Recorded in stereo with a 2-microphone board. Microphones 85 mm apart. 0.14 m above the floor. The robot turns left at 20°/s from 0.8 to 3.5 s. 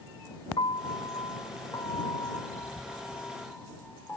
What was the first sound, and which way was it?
A piano, 70° left (ahead or behind).